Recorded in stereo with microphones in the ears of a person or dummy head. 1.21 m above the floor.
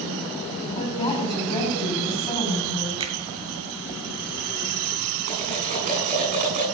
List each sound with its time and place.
0.8 s a woman speaking: 25° left (ahead or behind), 7 m
3.0 s a finger snap: 30° right (ahead or behind), 1.6 m
5.3 s cutlery clinking: 40° right (ahead or behind), 8.5 m